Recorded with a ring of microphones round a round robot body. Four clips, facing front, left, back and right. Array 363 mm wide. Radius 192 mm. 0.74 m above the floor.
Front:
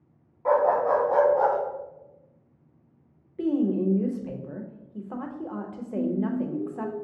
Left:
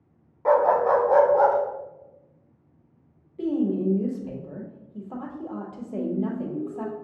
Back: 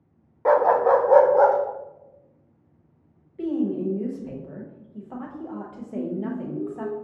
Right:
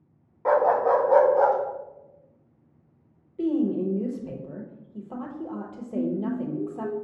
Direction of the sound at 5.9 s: 110° left.